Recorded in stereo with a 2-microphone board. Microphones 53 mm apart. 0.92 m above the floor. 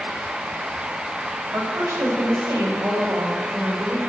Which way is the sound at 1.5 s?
70° right (ahead or behind).